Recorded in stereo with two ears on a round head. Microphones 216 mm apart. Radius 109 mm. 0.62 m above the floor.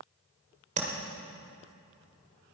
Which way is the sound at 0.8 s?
35° right (ahead or behind).